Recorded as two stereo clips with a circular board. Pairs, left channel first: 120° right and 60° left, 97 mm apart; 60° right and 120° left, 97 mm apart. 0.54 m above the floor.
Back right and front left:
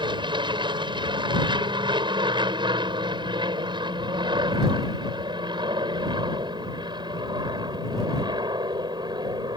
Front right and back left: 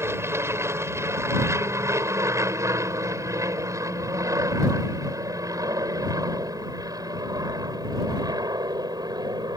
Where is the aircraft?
65° left; by 9.6 s 85° left.